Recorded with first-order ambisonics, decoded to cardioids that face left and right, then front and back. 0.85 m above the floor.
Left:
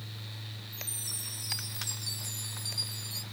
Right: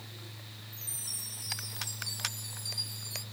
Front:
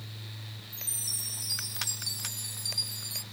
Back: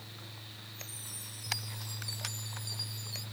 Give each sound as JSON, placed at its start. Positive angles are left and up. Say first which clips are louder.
{"t": 0.7, "sound": "a chime", "louder": "left 1 dB, front 12 dB", "azimuth_deg": 5, "distance_m": 2.0}